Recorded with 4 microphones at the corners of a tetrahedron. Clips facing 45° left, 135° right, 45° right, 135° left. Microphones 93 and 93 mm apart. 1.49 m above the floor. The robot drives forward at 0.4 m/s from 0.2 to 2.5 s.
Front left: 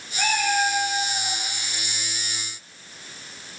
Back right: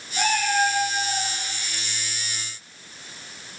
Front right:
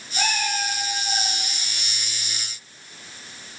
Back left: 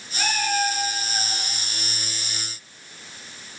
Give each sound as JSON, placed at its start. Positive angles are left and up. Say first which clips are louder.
{"t": 0.2, "sound": "a cat meowing", "louder": "back right 1 dB, back left 2 dB", "azimuth_deg": -100, "distance_m": 6.5}